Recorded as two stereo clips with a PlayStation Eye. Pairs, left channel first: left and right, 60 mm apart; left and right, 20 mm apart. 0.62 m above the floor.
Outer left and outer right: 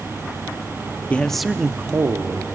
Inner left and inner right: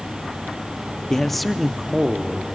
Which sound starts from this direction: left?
A man speaking, at 1.1 s.